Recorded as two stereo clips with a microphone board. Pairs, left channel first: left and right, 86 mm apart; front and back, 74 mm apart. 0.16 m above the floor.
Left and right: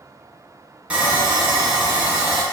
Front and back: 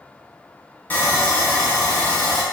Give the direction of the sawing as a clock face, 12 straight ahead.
1 o'clock.